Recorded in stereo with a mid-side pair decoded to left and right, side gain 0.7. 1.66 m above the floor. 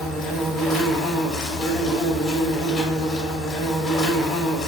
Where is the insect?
35° left, 0.8 m.